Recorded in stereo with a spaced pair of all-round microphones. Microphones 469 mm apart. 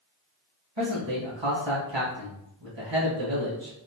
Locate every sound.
0.8 s a man speaking: 65° right (ahead or behind), 1.4 m